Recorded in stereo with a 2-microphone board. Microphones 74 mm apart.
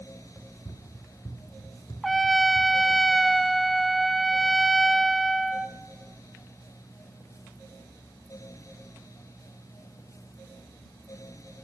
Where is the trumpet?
Centre (ahead or behind), 0.6 m.